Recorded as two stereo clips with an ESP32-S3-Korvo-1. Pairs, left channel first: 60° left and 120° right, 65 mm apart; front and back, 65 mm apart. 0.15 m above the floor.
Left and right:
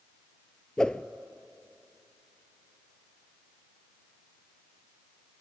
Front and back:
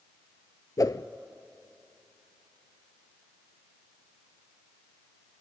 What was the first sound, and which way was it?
A whoosh, 20° right.